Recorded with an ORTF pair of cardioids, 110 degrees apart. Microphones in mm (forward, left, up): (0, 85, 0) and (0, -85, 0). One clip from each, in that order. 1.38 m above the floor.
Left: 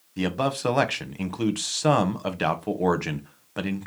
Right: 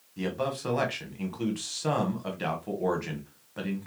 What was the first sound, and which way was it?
A man speaking, 45° left.